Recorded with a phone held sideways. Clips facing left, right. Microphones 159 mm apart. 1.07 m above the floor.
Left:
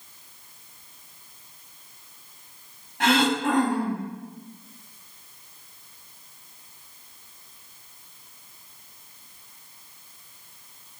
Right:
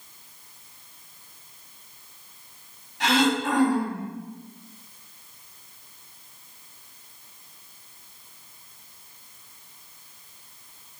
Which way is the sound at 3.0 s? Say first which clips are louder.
Left 1 dB; 55° left (ahead or behind).